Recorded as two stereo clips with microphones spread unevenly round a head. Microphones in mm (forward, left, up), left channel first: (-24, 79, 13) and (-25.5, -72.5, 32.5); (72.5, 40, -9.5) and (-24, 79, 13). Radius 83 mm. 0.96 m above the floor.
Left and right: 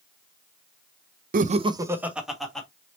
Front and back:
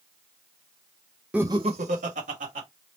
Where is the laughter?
110° right, 0.5 m; by 2.7 s 175° left, 1.5 m.